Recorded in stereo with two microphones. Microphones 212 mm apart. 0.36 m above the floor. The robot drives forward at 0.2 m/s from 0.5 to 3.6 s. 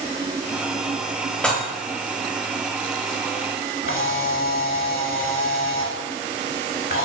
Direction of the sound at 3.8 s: 70° left (ahead or behind).